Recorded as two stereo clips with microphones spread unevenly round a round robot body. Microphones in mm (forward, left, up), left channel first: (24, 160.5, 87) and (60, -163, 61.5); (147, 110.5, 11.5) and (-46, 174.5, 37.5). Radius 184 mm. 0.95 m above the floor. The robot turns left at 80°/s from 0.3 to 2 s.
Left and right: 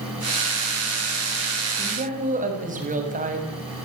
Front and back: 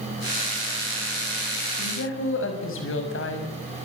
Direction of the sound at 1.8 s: Straight ahead.